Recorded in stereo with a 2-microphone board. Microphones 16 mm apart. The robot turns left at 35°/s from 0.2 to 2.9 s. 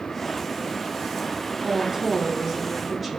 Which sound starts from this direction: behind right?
A woman speaking, at 1.6 s.